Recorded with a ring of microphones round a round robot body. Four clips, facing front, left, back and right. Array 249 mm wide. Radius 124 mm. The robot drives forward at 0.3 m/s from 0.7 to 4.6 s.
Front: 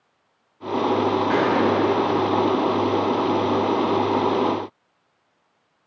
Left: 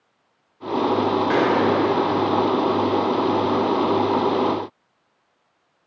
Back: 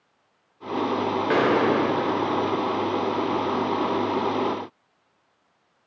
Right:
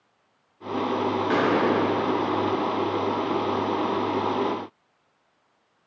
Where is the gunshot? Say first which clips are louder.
Left 2 dB, back 2 dB; 170° left, 2.5 m.